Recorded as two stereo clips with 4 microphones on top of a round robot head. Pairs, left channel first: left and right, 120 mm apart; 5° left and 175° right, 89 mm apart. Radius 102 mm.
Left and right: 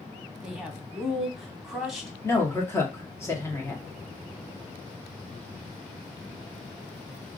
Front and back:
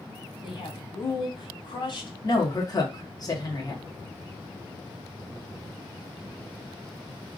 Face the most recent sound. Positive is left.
turn(degrees=30)